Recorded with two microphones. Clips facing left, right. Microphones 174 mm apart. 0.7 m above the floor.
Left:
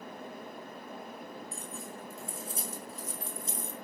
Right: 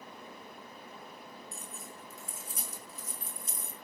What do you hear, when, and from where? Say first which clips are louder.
1.5 s keys jangling: left 5 dB; 35° left (ahead or behind), 4.5 m; by 3.7 s 30° left (ahead or behind), 3 m